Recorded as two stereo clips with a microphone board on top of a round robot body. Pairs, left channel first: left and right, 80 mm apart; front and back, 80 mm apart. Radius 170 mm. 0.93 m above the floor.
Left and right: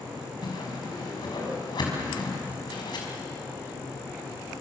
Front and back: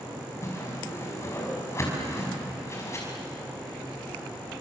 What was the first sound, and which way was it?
A whoosh, 55° left.